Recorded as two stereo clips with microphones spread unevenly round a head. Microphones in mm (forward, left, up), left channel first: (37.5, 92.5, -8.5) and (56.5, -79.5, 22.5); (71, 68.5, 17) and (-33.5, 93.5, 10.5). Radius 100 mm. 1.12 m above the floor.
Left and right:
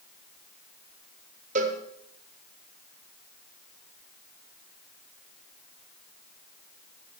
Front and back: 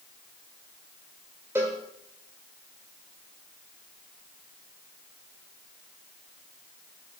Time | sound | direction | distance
1.6 | a cowbell | 115° right | 1.1 m